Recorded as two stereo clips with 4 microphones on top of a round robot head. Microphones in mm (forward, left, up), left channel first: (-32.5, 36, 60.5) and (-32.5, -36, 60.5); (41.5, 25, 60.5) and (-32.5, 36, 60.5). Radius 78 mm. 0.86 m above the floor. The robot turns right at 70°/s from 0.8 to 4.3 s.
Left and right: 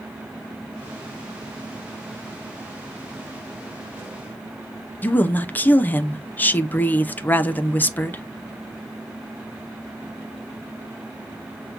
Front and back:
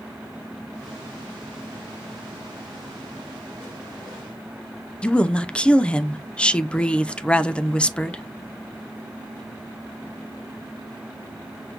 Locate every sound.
5.0 s a woman speaking: 55° left, 0.6 m